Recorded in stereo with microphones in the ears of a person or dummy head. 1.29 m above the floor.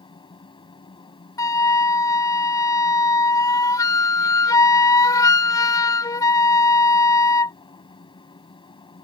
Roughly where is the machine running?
Left.